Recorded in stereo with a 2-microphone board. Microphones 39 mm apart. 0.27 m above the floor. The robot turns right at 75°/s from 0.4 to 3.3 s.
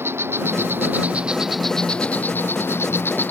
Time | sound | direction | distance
0.0 | an insect | 90° right | ?